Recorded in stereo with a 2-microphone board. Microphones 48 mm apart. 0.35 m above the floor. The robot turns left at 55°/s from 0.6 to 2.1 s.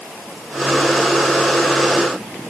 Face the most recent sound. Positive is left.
No sound to turn to.